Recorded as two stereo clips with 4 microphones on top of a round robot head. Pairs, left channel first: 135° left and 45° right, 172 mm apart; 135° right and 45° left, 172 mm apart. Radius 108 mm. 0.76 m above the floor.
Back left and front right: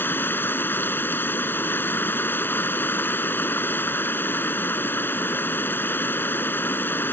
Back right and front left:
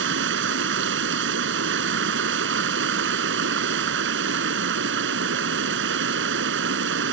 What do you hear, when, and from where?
0.0 s running water: 60° left